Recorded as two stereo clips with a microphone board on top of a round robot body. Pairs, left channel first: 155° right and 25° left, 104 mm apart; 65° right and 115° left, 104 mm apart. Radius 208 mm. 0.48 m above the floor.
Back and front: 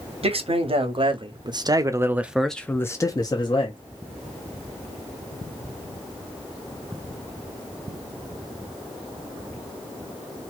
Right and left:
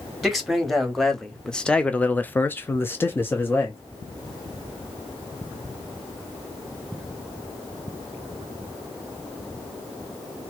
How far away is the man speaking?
About 1.4 m.